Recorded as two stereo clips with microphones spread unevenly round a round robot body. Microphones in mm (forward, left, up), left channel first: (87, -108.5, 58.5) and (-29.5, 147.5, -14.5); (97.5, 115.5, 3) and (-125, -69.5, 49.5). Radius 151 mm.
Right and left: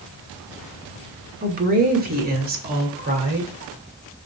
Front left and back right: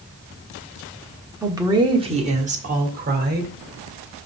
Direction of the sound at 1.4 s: 130° left.